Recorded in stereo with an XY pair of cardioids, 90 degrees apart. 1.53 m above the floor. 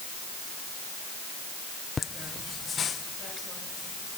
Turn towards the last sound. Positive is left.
turn(degrees=65)